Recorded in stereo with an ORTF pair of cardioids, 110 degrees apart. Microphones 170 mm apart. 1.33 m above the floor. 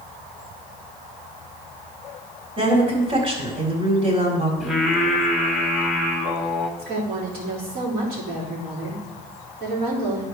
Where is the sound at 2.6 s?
35° right, 3.5 m.